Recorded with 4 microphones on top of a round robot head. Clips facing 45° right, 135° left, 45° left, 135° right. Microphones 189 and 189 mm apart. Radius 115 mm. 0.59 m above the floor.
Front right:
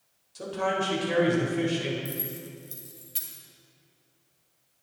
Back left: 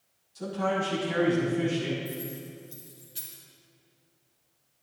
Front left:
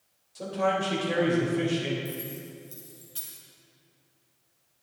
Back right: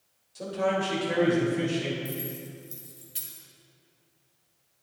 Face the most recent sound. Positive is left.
turn(degrees=-65)